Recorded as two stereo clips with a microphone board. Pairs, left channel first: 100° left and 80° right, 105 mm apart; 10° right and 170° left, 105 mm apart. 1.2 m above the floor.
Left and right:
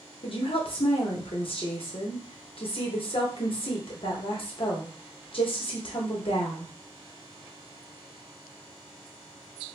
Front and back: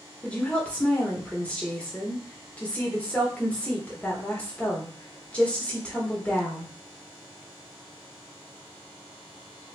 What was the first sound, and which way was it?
A woman speaking, 65° left.